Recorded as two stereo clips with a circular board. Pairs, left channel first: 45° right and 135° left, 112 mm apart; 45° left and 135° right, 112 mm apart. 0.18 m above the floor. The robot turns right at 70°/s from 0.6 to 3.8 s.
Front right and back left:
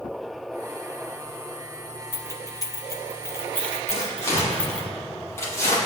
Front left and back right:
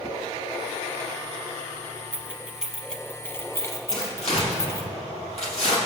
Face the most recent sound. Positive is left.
turn(degrees=20)